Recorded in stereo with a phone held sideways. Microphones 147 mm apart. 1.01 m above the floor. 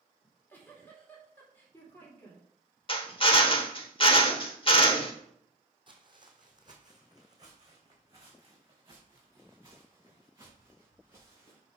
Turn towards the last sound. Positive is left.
turn(degrees=-20)  # may be behind; listen again after turning